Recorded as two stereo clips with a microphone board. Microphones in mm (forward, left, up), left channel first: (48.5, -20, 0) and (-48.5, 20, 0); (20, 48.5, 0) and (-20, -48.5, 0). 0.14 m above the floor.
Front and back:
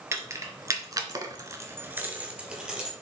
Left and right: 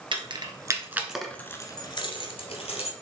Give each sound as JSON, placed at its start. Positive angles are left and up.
{"t": 0.1, "sound": "keys jangling", "azimuth_deg": -140, "distance_m": 1.8}